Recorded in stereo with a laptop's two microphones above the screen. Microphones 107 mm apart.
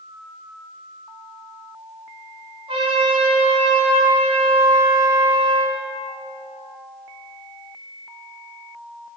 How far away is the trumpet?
About 4 m.